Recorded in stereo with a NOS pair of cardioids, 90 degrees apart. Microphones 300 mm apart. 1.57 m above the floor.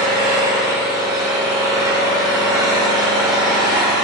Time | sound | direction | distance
0.0 | an engine running | 15° right | 3 m